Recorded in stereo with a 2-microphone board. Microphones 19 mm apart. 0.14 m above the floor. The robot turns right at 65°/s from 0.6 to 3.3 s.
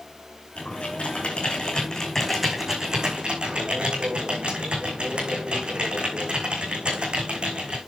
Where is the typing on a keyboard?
60° left, 5 m; by 7.8 s 125° right, 5 m.